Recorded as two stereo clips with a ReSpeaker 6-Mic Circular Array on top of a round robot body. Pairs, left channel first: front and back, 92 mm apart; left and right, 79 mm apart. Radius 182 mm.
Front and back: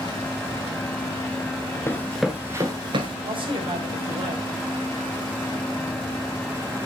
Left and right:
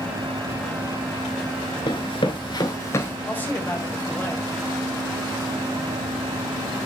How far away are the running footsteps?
About 0.7 m.